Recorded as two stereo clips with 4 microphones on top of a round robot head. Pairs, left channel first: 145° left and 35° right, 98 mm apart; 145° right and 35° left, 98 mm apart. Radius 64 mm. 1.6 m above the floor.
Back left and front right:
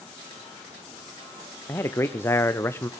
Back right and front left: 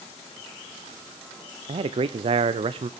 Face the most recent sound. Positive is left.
turn(degrees=75)